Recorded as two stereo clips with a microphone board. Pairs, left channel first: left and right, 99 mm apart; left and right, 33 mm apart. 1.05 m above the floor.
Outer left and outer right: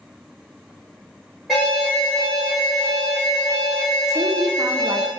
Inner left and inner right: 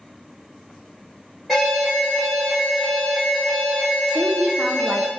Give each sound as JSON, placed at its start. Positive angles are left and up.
{"t": 1.5, "sound": "an alarm", "side_deg": 0, "distance_m": 2.0}
{"t": 4.1, "sound": "a woman speaking", "side_deg": -35, "distance_m": 0.6}